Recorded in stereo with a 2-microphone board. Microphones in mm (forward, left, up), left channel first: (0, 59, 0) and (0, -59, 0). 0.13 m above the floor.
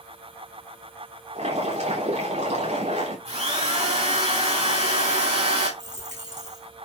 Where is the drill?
60° right (ahead or behind), 5.5 m.